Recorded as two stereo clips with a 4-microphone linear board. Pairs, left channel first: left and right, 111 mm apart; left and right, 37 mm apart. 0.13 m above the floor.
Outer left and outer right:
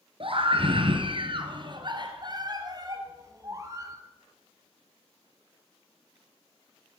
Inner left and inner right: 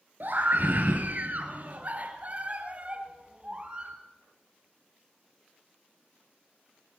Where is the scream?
55° right (ahead or behind), 2 m; by 4.0 s 25° right (ahead or behind), 3 m.